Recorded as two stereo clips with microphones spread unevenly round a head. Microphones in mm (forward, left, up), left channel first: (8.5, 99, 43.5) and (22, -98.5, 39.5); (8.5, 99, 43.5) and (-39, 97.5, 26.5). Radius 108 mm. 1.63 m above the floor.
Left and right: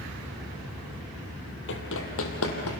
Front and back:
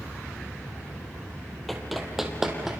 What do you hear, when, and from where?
1.7 s running footsteps: 75° left, 3 m; by 2.8 s 95° left, 4 m